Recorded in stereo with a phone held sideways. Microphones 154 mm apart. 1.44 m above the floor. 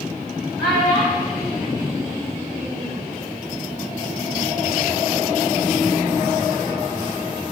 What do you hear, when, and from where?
0.6 s a child speaking: 80° left, 1.4 m; by 3.0 s 45° left (ahead or behind), 1.7 m